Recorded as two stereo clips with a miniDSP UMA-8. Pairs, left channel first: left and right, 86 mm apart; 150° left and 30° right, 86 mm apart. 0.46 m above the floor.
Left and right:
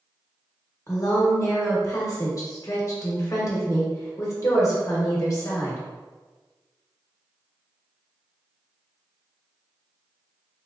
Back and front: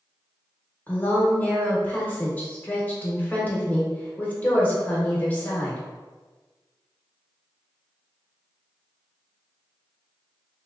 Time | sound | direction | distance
0.9 | a woman speaking | 95° left | 1.0 m